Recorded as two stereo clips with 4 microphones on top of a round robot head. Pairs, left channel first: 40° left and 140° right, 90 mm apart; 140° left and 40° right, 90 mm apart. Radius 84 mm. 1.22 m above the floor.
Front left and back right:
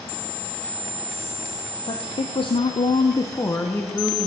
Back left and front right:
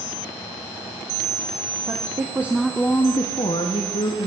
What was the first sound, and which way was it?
A woman speaking, 5° left.